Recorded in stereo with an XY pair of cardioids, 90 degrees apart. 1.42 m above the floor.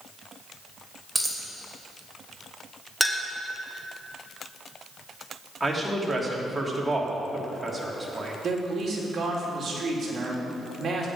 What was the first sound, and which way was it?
A dropped coin, 5° right.